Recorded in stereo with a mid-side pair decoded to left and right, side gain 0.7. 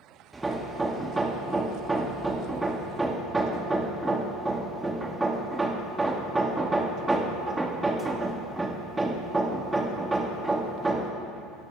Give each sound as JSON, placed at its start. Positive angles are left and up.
{"t": 0.3, "sound": "hammering", "azimuth_deg": -10, "distance_m": 1.5}